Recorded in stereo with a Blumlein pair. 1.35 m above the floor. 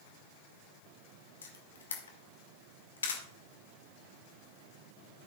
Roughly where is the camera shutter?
Left.